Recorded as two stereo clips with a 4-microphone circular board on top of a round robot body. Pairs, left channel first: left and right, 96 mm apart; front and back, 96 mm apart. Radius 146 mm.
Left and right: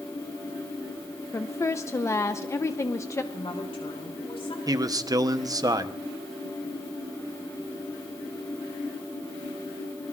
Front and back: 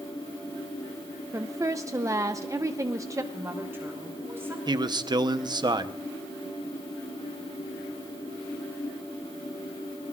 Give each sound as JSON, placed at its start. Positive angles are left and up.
{"t": 1.3, "sound": "a woman speaking", "azimuth_deg": 140, "distance_m": 0.9}
{"t": 3.3, "sound": "a woman speaking", "azimuth_deg": 115, "distance_m": 5.0}
{"t": 4.7, "sound": "a man speaking", "azimuth_deg": -140, "distance_m": 1.1}